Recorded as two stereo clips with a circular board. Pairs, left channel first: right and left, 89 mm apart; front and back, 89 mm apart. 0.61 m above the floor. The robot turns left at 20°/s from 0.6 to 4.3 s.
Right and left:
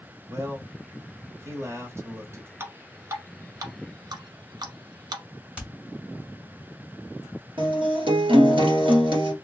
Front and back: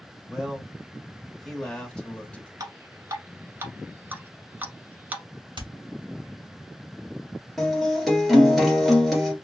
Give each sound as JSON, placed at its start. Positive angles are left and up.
{"t": 0.3, "sound": "a man speaking", "azimuth_deg": 100, "distance_m": 1.0}
{"t": 2.6, "sound": "dripping", "azimuth_deg": 145, "distance_m": 0.8}
{"t": 5.6, "sound": "hammering", "azimuth_deg": 165, "distance_m": 1.6}
{"t": 7.6, "sound": "a guitar", "azimuth_deg": 90, "distance_m": 1.5}